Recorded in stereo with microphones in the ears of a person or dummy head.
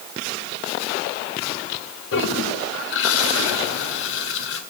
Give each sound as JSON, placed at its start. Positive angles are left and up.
{"t": 2.1, "sound": "a toilet flushing", "side_deg": 70, "distance_m": 2.0}